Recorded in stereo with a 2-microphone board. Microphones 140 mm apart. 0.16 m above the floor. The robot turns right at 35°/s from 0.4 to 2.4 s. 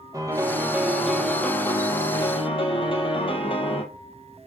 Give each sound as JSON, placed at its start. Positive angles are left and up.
{"t": 0.1, "sound": "a piano", "azimuth_deg": -25, "distance_m": 1.1}